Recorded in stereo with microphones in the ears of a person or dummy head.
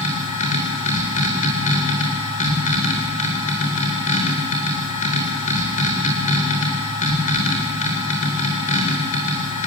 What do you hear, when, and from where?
0.0 s a machine running: 40° left (ahead or behind), 3 m